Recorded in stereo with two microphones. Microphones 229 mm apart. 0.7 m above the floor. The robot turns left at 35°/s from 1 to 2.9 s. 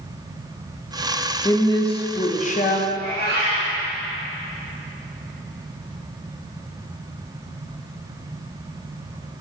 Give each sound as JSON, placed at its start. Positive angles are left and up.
{"t": 1.4, "sound": "a woman speaking", "azimuth_deg": 155, "distance_m": 0.7}
{"t": 2.9, "sound": "a cat meowing", "side_deg": 45, "distance_m": 2.5}